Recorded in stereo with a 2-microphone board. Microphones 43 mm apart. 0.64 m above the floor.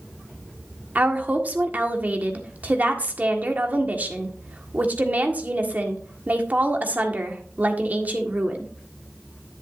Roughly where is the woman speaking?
Right.